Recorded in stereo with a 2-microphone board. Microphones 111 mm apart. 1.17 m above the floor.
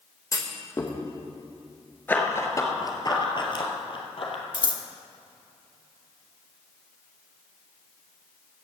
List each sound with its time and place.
0.3 s a clunk: 30° left (ahead or behind), 1.2 m
2.1 s running footsteps: 15° left (ahead or behind), 1.2 m; by 4.4 s 60° left (ahead or behind), 2 m
4.5 s scissors: 45° left (ahead or behind), 1.0 m